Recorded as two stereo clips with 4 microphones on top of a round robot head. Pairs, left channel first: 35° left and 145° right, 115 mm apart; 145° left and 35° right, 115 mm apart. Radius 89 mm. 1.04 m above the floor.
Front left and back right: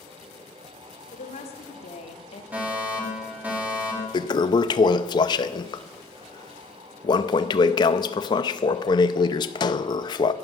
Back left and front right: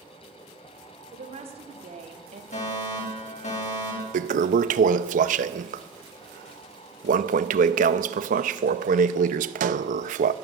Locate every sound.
1.1 s a woman speaking: straight ahead, 3 m; by 2.4 s 5° right, 1.7 m
2.5 s a fire alarm: 135° left, 4.5 m
4.1 s a toilet flushing: 20° right, 0.6 m